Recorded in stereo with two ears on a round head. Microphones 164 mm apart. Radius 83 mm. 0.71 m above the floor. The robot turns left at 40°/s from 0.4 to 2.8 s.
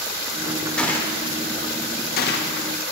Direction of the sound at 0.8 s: 5° left (ahead or behind).